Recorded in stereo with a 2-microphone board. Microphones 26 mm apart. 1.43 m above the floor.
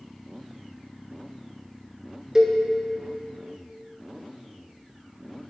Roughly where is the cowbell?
Right.